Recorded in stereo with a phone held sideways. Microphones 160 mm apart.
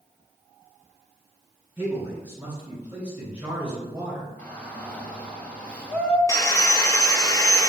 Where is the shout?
10° left (ahead or behind), 2.5 m.